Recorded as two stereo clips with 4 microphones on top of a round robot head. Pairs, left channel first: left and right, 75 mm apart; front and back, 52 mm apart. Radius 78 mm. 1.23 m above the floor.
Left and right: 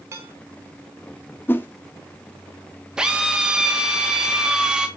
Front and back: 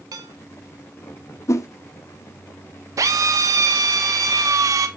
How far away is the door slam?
I don't hear a door slam.